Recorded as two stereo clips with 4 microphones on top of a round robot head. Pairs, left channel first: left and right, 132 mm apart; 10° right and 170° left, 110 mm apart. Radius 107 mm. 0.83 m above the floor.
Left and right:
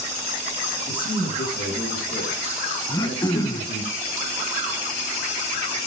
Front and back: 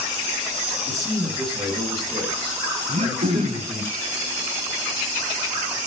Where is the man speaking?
100° left, 5.5 m; by 3.9 s 85° left, 4 m.